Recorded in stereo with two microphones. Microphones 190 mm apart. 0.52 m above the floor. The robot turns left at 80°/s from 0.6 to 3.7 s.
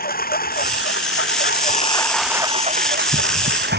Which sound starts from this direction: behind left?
A lawn mower, at 0.0 s.